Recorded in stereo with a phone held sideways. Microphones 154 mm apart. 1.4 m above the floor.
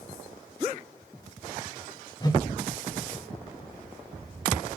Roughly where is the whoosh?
Left.